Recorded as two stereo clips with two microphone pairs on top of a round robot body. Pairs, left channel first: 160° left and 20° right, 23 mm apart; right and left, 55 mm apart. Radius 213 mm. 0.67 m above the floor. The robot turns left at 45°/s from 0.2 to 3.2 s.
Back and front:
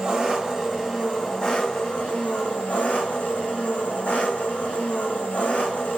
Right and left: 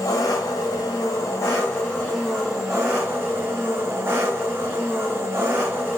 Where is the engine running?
80° right, 1.5 m; by 6.0 s 145° left, 1.5 m.